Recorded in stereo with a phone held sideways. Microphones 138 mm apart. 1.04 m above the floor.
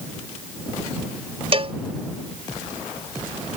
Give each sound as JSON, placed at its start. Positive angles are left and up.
{"t": 1.5, "sound": "a cowbell", "side_deg": -45}